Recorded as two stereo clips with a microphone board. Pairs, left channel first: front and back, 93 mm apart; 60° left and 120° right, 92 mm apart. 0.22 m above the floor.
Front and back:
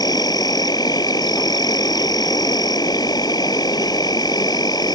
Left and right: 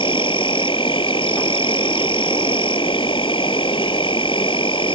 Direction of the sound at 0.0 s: 40° left.